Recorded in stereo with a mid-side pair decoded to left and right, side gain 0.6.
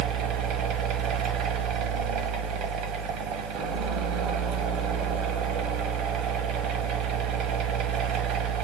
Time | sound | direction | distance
0.0 | a fan | 65° right | 0.8 m